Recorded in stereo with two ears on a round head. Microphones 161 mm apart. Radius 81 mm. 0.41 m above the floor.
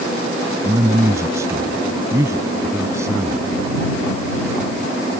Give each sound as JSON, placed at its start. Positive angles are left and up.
{"t": 0.6, "sound": "a man speaking", "side_deg": -20}